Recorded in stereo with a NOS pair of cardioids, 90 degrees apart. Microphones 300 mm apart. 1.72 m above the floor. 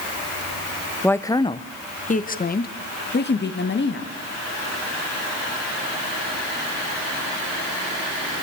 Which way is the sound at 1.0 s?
5° left.